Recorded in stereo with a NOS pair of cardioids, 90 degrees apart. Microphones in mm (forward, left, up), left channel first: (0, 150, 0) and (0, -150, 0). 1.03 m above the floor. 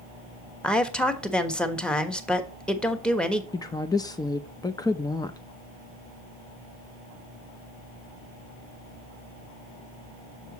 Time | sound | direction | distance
0.6 | a woman speaking | 5° left | 1.2 m
3.5 | a woman speaking | 15° left | 0.6 m